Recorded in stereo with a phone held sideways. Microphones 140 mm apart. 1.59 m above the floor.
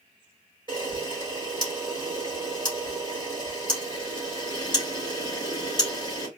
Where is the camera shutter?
40° right (ahead or behind), 3 m.